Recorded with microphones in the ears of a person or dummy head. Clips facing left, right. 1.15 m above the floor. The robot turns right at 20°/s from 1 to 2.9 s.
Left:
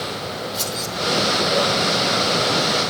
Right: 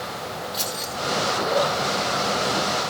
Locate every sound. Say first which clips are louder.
0.5 s keys jangling: left 3 dB; 10° right (ahead or behind), 3 m